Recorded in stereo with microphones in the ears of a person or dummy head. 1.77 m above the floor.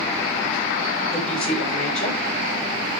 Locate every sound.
1.1 s a woman speaking: 5° left (ahead or behind), 6.5 m